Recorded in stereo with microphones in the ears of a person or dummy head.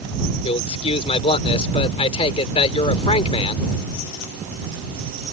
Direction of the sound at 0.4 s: 35° left (ahead or behind).